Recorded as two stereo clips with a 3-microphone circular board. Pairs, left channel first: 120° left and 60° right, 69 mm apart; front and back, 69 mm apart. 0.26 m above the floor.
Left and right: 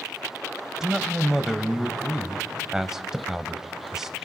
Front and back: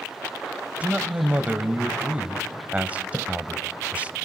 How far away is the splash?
About 0.5 m.